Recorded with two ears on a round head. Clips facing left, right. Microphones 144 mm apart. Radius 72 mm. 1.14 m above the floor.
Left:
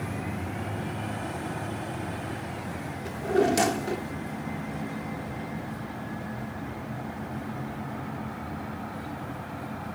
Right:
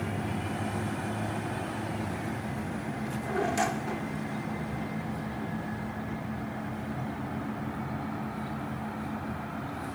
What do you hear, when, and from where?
3.0 s a drawer: 45° left (ahead or behind)